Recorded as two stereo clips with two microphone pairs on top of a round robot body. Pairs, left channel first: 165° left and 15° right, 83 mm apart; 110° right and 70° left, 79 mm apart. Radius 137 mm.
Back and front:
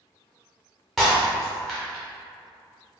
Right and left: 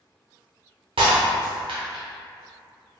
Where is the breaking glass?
75° left, 0.7 m.